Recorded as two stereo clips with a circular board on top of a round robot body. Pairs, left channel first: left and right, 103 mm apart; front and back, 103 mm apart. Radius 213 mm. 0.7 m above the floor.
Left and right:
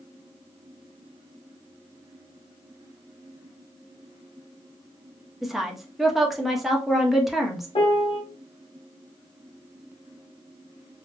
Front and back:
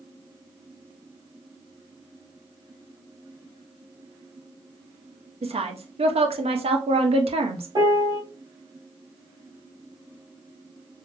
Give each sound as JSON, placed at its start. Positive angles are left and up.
{"t": 5.4, "sound": "a woman speaking", "azimuth_deg": -175, "distance_m": 1.0}
{"t": 7.8, "sound": "a piano", "azimuth_deg": 130, "distance_m": 1.0}